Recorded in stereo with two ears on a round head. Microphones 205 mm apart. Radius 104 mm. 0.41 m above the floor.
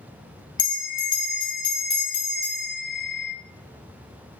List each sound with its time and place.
0.6 s a bell: 20° left (ahead or behind), 1.1 m